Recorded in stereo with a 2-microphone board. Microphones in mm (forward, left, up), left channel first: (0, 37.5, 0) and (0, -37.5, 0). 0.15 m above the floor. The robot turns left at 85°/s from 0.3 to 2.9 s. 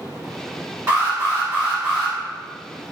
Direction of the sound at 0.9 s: 25° right (ahead or behind).